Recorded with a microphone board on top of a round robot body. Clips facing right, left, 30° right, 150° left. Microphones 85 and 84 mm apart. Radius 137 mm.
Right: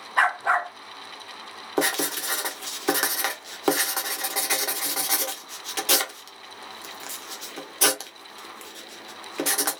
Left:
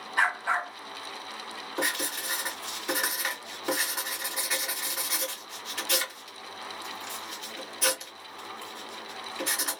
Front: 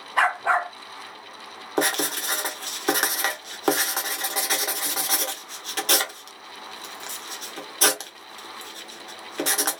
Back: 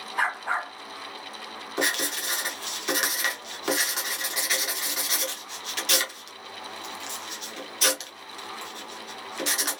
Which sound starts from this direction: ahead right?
A dog barking, at 0.2 s.